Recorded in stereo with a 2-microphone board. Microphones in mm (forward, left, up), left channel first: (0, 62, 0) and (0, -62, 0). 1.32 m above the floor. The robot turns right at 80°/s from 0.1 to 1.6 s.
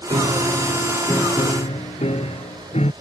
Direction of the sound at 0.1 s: 60° right.